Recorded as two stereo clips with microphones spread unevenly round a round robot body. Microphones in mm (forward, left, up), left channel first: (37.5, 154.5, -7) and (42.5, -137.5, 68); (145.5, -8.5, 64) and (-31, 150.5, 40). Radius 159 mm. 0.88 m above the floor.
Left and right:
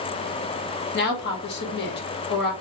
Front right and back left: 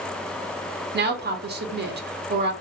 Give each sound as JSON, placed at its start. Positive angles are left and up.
{"t": 0.9, "sound": "a woman speaking", "azimuth_deg": 115, "distance_m": 0.8}